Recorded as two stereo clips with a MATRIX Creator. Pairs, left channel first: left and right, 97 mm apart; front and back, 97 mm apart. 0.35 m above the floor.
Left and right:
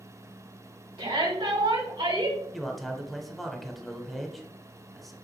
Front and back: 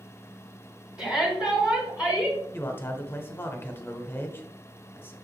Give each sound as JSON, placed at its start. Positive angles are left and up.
{"t": 1.0, "sound": "a shout", "azimuth_deg": -100, "distance_m": 2.5}
{"t": 2.5, "sound": "a man speaking", "azimuth_deg": 5, "distance_m": 1.0}